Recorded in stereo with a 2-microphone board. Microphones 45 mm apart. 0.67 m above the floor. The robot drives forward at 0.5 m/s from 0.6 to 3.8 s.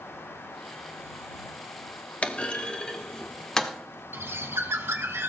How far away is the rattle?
I don't hear a rattle.